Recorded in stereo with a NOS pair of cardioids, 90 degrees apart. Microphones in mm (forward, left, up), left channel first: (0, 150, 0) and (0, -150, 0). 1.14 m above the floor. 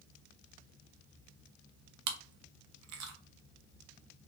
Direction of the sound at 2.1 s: 60° right.